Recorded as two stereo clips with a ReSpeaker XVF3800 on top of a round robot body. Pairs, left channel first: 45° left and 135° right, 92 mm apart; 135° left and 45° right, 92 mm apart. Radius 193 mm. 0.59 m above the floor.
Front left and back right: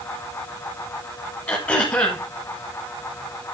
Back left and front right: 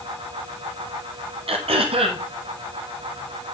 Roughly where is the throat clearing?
Ahead right.